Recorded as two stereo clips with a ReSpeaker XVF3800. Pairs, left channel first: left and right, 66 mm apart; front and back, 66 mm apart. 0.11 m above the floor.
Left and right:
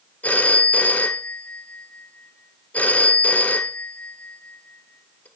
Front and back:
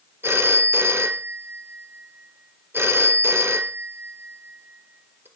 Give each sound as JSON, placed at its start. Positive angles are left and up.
{"t": 0.2, "sound": "a phone ringing", "azimuth_deg": 145, "distance_m": 1.4}